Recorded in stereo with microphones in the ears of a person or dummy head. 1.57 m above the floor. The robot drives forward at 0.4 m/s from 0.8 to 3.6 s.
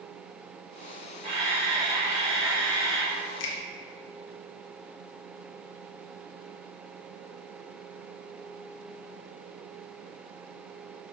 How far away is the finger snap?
About 1.4 m.